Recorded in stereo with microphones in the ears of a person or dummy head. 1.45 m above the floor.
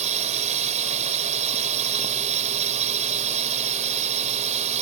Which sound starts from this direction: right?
A drone, at 0.0 s.